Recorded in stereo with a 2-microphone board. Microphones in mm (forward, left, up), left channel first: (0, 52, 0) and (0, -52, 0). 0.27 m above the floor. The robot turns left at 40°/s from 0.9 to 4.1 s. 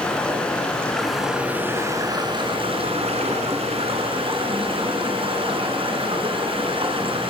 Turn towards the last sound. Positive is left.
turn(degrees=-120)